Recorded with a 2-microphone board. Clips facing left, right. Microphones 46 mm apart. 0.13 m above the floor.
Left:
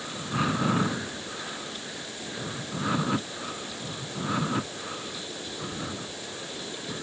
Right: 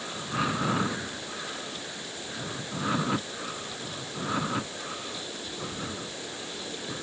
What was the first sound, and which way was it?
Only background noise.